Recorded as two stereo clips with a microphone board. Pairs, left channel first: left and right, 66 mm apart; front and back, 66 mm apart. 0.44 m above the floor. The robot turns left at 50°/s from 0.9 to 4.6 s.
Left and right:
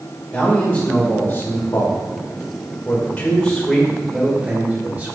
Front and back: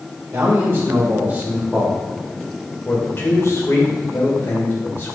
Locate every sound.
0.3 s a man speaking: 145° left, 1.7 m; by 5.2 s 40° right, 1.7 m